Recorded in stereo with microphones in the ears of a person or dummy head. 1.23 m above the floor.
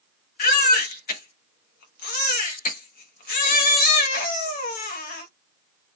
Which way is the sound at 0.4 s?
55° left (ahead or behind).